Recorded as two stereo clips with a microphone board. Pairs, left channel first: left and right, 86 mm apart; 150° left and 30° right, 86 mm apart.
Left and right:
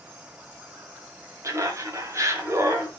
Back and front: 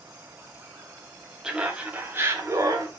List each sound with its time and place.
1.4 s laughter: 105° right, 1.1 m; by 2.9 s 50° right, 1.2 m